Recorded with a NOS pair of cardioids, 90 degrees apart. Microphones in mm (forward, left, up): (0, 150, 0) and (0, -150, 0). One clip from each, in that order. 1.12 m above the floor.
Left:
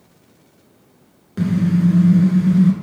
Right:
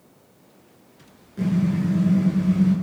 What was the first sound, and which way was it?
A car horn, 70° left.